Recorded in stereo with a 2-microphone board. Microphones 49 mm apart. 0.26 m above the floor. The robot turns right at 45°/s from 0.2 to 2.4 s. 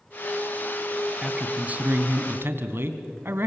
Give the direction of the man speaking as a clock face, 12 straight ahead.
5 o'clock.